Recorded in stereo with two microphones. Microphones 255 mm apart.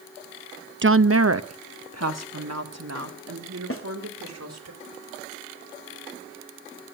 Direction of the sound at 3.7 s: 55° left (ahead or behind).